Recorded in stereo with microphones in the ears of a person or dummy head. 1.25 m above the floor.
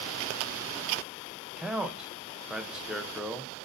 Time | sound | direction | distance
1.6 | a man speaking | 5° right (ahead or behind) | 0.5 m